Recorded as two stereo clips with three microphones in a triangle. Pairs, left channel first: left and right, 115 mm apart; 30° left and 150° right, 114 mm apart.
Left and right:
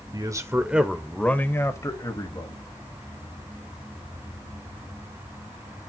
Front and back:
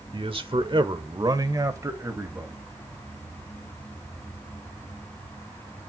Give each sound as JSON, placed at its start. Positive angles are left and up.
{"t": 0.1, "sound": "a man speaking", "azimuth_deg": -130, "distance_m": 1.4}